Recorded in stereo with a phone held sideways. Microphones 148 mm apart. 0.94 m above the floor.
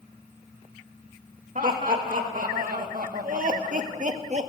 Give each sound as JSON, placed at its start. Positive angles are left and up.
{"t": 1.6, "sound": "laughter", "side_deg": -70, "distance_m": 2.5}